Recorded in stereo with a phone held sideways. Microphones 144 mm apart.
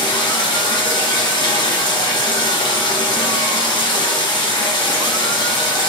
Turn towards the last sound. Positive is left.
turn(degrees=35)  # may be behind; listen again after turning